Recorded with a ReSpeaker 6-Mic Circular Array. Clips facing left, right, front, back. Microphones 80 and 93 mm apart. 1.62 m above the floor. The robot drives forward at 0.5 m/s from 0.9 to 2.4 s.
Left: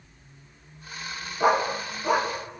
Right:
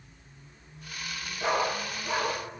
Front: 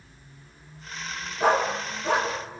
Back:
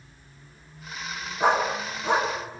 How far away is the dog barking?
About 4.5 m.